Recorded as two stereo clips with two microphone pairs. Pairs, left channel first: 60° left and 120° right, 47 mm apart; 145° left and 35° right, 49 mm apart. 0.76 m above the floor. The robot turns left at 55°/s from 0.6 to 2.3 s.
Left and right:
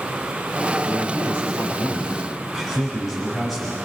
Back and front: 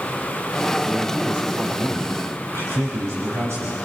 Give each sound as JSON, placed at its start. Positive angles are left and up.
{"t": 0.8, "sound": "a man speaking", "azimuth_deg": 55, "distance_m": 6.5}